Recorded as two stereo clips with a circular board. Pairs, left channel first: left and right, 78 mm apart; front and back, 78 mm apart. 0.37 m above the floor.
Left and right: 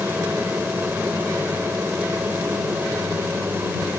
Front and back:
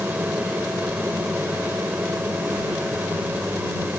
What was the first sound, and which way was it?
An aircraft, 130° right.